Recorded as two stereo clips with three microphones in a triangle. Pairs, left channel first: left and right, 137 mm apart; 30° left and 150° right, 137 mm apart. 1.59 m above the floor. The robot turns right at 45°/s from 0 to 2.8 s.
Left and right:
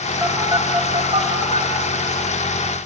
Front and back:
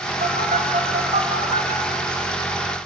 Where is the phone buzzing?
170° right, 2.5 m; by 1.7 s 105° right, 2.5 m.